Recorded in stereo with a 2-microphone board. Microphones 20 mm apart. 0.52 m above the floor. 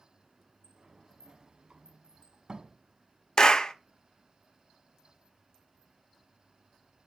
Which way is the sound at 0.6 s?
40° right (ahead or behind).